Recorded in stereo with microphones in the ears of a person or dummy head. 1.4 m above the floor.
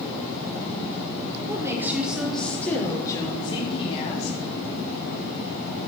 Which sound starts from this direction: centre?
A woman speaking, at 1.5 s.